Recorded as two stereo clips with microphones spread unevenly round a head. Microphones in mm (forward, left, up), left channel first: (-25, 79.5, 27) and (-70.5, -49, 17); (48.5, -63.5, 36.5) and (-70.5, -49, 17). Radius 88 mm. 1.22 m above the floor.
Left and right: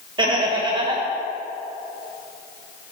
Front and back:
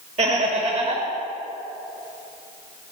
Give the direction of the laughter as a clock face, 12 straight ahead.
5 o'clock.